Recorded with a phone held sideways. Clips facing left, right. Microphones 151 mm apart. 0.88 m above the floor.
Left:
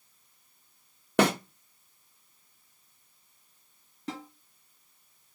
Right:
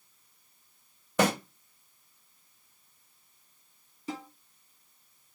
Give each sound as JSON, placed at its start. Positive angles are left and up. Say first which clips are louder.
{"t": 1.2, "sound": "a snare drum", "louder": "left 2 dB", "side_deg": 70, "distance_m": 1.1}
{"t": 4.1, "sound": "a snare drum", "louder": "even", "side_deg": 70, "distance_m": 2.5}